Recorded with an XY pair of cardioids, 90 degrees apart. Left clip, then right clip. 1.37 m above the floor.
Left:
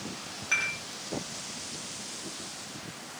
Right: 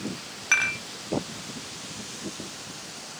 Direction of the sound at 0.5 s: 65° right.